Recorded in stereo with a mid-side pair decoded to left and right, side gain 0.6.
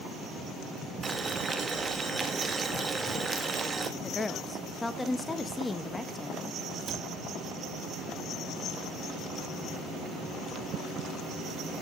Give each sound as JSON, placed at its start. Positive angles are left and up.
{"t": 1.0, "sound": "boiling", "azimuth_deg": -25, "distance_m": 1.8}
{"t": 4.0, "sound": "a woman speaking", "azimuth_deg": 15, "distance_m": 1.1}
{"t": 6.9, "sound": "a cupboard door", "azimuth_deg": -25, "distance_m": 4.0}